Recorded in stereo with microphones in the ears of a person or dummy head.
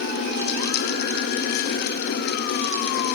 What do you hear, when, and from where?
Only background noise.